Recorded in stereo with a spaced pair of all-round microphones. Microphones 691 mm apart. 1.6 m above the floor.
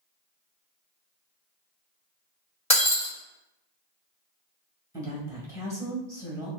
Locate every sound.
2.7 s breaking glass: 10° left (ahead or behind), 1.5 m
4.9 s a woman speaking: 5° right (ahead or behind), 1.4 m